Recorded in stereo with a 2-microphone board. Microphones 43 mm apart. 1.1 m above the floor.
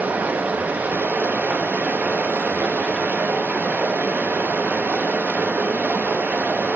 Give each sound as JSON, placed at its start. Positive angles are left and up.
{"t": 0.0, "sound": "running water", "side_deg": -40, "distance_m": 1.0}